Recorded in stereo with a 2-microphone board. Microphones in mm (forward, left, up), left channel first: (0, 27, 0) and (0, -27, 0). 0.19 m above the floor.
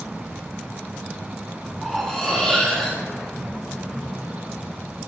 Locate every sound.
1.8 s cutlery clinking: 10° left (ahead or behind), 4 m